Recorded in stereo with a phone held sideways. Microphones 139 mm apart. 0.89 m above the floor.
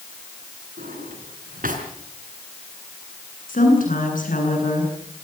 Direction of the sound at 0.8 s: 80° right.